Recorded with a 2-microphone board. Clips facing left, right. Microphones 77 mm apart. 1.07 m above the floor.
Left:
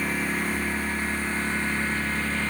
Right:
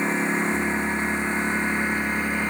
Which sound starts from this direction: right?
A lawn mower, at 0.0 s.